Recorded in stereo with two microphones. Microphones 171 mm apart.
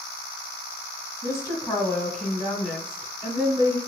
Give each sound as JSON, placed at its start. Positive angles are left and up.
{"t": 1.2, "sound": "a woman speaking", "side_deg": 20, "distance_m": 1.3}